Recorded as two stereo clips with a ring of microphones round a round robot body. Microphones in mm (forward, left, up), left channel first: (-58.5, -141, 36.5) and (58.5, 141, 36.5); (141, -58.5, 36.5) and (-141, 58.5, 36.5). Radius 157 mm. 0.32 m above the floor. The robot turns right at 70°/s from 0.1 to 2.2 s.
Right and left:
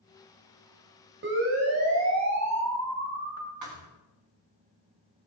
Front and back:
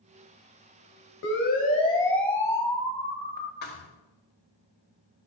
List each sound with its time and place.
1.2 s a siren: 20° left, 3 m; by 3.5 s 30° left, 2.5 m
3.6 s a thud: 35° left, 3 m